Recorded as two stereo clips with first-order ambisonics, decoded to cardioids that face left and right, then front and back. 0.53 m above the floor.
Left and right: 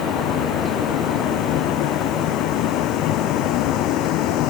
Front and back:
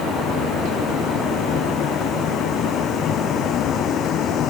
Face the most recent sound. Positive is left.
turn(degrees=55)